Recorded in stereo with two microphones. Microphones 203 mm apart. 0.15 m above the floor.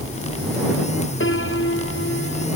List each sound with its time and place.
1.2 s a piano: 70° left (ahead or behind)